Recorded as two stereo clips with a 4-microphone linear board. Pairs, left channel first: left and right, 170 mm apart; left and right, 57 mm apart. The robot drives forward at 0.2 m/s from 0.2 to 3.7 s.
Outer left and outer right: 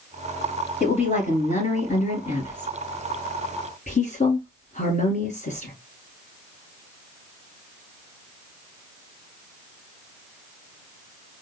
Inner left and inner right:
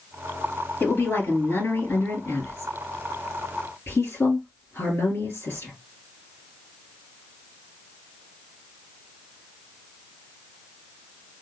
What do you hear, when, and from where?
0.8 s a woman speaking: 45° left (ahead or behind), 2.5 m